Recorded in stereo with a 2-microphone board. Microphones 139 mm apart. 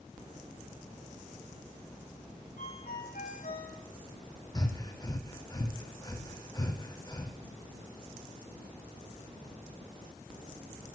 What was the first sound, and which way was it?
A ringtone, 75° left (ahead or behind).